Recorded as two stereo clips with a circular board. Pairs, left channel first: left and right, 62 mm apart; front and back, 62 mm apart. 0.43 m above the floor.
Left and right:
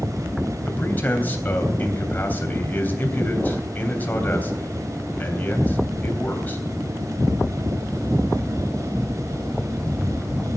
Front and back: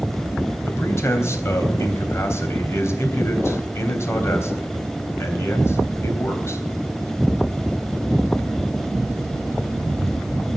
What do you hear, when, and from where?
0.7 s a man speaking: 35° left, 3 m